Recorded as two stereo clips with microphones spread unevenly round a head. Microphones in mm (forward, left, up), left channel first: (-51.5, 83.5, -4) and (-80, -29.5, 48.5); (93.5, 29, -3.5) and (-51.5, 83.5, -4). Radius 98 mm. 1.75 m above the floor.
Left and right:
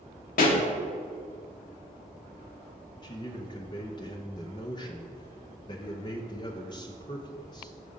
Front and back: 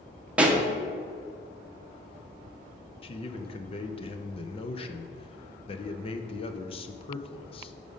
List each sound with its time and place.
0.4 s a pop: 80° left, 0.9 m
3.0 s a man speaking: 5° right, 0.5 m